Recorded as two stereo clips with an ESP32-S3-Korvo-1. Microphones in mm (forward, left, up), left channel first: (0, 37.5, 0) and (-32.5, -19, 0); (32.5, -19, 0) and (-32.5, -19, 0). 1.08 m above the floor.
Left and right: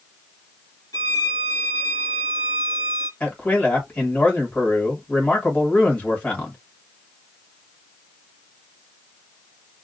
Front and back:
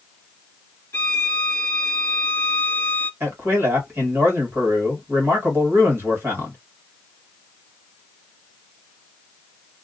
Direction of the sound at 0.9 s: 55° left.